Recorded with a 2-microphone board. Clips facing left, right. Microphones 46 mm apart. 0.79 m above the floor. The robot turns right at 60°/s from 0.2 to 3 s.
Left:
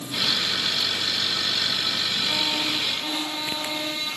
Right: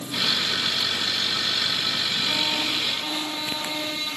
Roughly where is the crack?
I don't hear a crack.